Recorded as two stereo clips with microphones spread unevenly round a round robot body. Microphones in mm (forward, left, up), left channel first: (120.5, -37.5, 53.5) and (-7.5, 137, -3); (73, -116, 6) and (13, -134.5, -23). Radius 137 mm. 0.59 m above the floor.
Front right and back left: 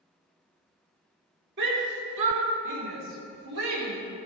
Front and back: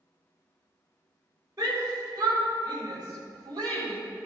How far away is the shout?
About 3 m.